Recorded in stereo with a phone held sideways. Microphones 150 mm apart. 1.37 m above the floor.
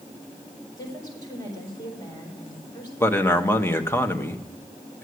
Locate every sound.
0.8 s a woman speaking: 25° left (ahead or behind), 4.5 m
3.0 s a man speaking: 15° left (ahead or behind), 1.0 m